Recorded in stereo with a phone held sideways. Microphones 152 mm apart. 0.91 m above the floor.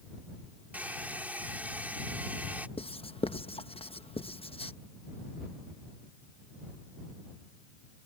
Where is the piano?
I don't hear a piano.